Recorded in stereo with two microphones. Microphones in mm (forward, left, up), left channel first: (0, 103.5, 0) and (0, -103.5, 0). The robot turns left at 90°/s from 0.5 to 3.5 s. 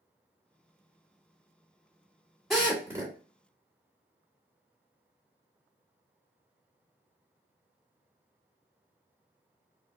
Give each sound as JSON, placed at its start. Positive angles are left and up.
{"t": 2.5, "sound": "a drill", "side_deg": 0, "distance_m": 1.5}